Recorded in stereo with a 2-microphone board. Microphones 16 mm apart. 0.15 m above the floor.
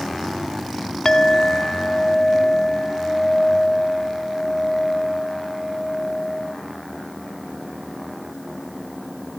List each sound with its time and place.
1.1 s a clink: 25° left (ahead or behind), 0.8 m